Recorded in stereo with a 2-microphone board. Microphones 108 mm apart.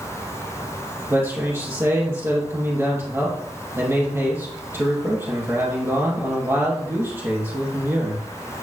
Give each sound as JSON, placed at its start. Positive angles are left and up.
{"t": 1.1, "sound": "a man speaking", "side_deg": -25, "distance_m": 3.0}